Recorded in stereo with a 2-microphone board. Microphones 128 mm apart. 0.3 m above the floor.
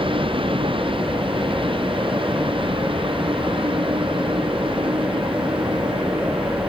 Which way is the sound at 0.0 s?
45° right (ahead or behind).